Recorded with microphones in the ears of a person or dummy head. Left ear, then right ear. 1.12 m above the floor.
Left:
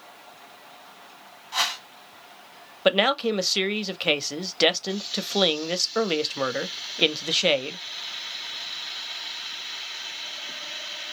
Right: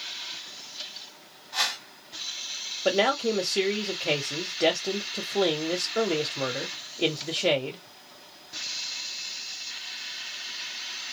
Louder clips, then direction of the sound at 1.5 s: Left 2 dB; 65° left (ahead or behind).